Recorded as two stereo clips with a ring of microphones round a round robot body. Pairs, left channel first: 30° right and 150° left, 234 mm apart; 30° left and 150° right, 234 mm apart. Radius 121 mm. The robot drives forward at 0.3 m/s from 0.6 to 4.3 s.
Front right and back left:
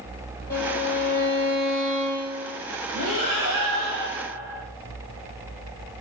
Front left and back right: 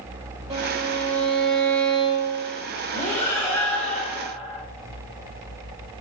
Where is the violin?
85° right, 1.5 m; by 2.6 s 105° right, 1.6 m.